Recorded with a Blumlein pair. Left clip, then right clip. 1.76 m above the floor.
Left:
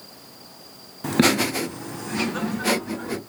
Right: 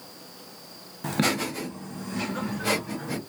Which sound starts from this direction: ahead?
Laughter, at 1.0 s.